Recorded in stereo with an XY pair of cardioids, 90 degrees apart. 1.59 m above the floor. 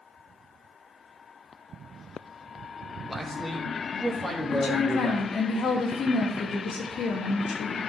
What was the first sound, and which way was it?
A man speaking, 15° left.